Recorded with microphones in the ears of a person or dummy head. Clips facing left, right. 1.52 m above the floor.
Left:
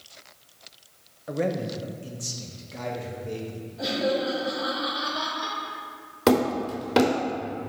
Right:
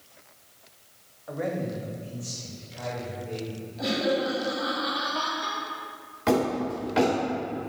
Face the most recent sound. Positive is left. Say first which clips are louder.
# left 3 dB
turn(degrees=60)  # may be behind; listen again after turning